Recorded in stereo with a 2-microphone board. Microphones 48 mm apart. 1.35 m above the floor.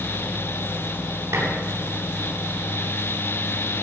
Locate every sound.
1.3 s dishes clattering: 65° right (ahead or behind), 4 m